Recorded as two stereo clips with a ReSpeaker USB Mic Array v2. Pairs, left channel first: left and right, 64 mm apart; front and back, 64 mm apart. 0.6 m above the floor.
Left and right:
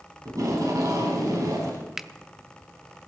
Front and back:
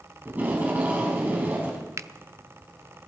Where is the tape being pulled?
115° right, 4.5 m.